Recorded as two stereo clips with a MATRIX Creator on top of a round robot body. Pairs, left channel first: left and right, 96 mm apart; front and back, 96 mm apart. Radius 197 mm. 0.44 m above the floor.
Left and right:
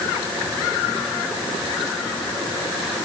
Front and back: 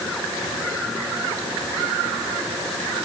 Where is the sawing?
I don't hear sawing.